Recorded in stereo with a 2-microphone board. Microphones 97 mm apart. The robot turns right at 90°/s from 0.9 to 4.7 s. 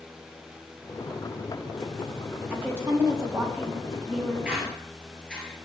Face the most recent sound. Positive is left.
turn(degrees=10)  # may be behind; listen again after turning